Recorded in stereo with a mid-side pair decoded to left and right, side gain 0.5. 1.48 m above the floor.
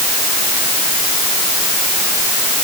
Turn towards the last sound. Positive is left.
No sound to turn to.